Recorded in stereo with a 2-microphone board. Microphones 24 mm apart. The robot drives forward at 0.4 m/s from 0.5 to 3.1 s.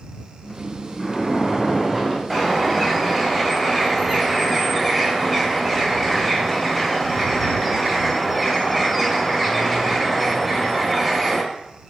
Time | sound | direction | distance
1.0 | a splash | centre (ahead or behind) | 1.7 m
2.3 | a bird | 5° left (ahead or behind) | 1.6 m